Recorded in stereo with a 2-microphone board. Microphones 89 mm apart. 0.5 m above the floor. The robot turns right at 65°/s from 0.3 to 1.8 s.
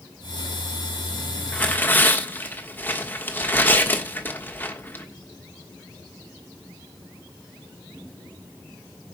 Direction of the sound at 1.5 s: 15° left (ahead or behind).